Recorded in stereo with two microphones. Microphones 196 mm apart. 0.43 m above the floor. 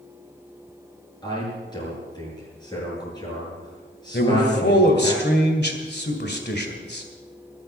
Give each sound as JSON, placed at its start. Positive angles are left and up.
{"t": 1.2, "sound": "a man speaking", "side_deg": 20, "distance_m": 7.5}
{"t": 4.1, "sound": "a man speaking", "side_deg": 60, "distance_m": 2.0}